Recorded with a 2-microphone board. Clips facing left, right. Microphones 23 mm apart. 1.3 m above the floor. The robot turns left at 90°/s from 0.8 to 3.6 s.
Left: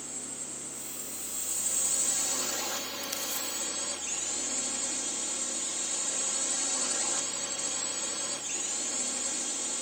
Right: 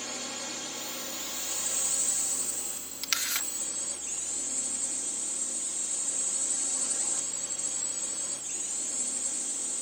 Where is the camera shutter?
65° right; by 3.5 s 105° right.